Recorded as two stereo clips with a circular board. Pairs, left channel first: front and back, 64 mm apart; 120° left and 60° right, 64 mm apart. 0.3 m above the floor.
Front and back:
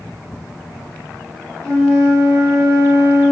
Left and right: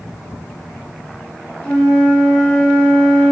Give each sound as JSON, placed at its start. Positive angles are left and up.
{"t": 1.6, "sound": "a flute", "azimuth_deg": -175, "distance_m": 0.9}